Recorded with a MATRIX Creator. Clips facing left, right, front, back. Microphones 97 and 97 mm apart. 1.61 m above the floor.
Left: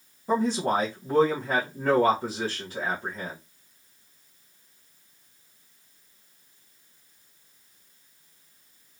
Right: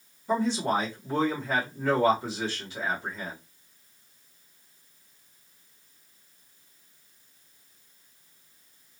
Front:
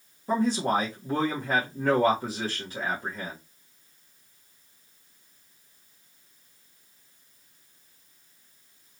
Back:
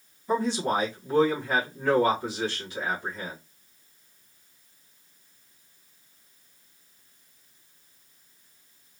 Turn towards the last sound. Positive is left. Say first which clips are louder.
# left 2 dB, front 1 dB
turn(degrees=50)